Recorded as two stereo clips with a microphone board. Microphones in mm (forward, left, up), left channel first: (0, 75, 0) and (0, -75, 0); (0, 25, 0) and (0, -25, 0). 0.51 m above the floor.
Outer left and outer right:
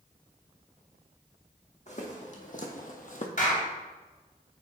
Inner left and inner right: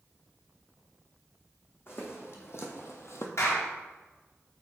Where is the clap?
65° left (ahead or behind), 2.5 m.